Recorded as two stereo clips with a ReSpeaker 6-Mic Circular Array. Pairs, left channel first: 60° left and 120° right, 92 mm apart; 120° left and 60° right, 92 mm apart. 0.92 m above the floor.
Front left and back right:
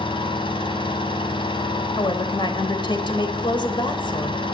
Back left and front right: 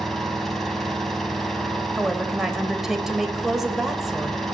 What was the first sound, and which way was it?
An engine running, 35° left.